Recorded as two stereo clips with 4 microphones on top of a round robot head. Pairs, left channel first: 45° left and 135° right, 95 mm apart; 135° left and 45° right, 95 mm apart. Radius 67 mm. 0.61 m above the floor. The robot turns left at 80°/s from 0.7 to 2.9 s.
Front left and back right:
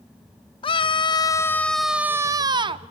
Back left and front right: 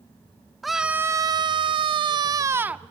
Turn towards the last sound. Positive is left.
turn(degrees=-130)